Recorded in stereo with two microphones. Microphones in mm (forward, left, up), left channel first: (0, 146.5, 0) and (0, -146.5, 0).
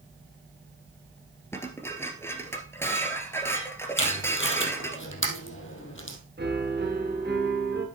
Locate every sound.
1.5 s dishes clattering: 10° left (ahead or behind), 1.5 m
4.0 s tape being pulled: 45° left (ahead or behind), 2.5 m
6.4 s a piano: 35° right (ahead or behind), 2.5 m